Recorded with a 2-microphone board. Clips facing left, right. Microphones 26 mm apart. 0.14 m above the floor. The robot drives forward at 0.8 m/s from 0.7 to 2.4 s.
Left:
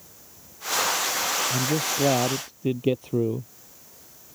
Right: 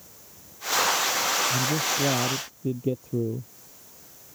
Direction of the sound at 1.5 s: 65° left (ahead or behind).